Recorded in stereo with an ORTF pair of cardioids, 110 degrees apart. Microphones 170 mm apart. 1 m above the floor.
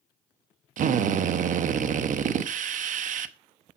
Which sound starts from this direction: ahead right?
A drill, at 0.8 s.